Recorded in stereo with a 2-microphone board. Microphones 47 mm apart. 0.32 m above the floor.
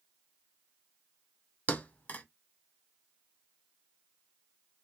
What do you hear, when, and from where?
1.7 s a thud: 35° left (ahead or behind), 0.6 m